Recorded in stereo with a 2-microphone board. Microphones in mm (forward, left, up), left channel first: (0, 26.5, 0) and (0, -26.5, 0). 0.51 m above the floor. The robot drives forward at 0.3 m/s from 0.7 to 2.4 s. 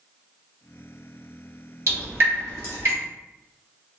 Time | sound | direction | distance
1.9 | dripping | 55° right (ahead or behind) | 1.4 m